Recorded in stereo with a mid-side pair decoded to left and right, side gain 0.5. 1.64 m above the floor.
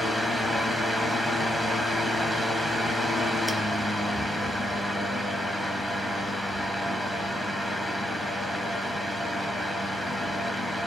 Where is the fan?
10° left, 0.7 m.